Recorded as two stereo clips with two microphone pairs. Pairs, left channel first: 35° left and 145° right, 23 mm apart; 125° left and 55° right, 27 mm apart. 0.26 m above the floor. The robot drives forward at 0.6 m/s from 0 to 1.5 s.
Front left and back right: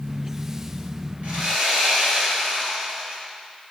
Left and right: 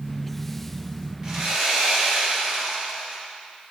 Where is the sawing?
130° right, 2.5 m; by 3.2 s 135° right, 2.5 m.